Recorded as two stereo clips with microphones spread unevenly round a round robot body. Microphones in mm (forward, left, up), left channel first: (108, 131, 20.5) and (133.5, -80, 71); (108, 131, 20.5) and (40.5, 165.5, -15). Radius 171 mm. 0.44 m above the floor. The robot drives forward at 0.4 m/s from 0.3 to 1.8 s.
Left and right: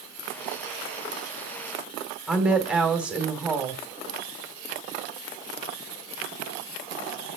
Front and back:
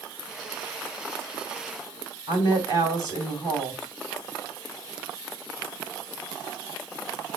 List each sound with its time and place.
2.3 s a woman speaking: straight behind, 1.8 m